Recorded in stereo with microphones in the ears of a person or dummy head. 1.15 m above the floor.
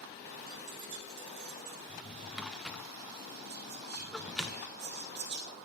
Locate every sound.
0.5 s keys jangling: 45° right (ahead or behind), 1.0 m; by 1.8 s 75° right (ahead or behind), 1.7 m
1.9 s a drawer: 5° right (ahead or behind), 0.6 m
3.5 s whispering: 50° right (ahead or behind), 1.9 m